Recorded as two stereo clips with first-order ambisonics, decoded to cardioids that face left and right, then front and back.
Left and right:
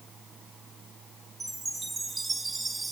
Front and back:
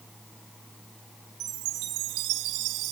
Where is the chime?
170° right, 1.5 m.